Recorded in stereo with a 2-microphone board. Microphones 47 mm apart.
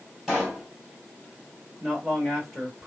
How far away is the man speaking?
About 1.5 m.